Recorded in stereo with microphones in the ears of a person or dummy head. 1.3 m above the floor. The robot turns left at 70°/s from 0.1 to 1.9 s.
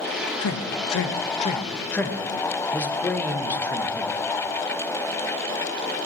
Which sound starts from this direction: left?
A man speaking, at 0.4 s.